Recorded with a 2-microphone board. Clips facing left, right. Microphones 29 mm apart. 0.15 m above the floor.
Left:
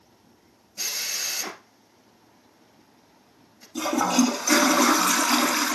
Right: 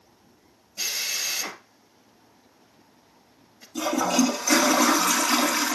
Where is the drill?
5° right (ahead or behind), 1.6 m.